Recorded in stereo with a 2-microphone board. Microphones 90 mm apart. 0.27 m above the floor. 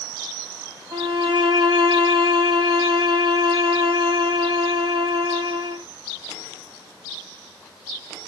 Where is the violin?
45° right (ahead or behind), 2.5 m.